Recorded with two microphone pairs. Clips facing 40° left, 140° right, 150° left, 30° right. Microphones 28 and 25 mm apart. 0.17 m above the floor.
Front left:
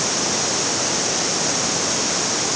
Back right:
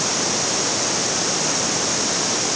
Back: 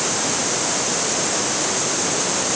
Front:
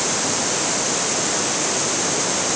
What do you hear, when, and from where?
Only background noise.